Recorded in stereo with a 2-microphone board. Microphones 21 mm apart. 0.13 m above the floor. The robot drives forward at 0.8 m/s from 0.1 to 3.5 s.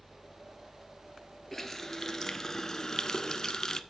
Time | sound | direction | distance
1.5 | a running tap | 15° left (ahead or behind) | 1.6 m